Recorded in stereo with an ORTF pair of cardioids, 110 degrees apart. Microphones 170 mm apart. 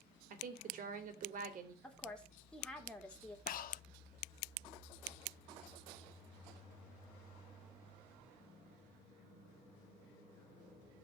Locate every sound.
0.3 s a woman speaking: 55° right, 3.5 m
1.8 s a woman speaking: 5° left, 3.5 m
3.5 s breathing: 60° left, 0.9 m